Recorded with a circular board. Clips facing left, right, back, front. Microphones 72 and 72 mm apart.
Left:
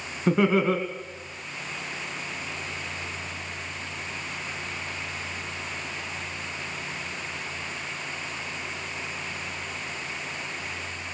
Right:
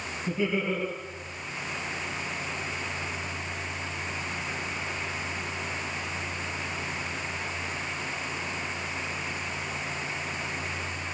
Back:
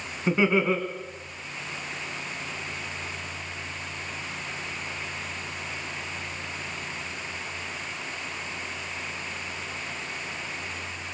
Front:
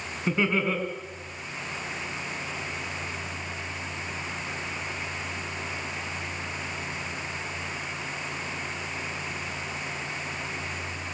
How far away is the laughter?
About 2.5 m.